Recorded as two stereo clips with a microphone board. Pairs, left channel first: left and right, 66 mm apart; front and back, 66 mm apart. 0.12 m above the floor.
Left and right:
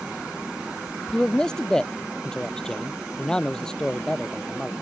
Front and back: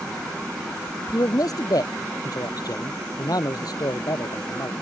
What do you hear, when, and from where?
1.1 s a man speaking: 10° left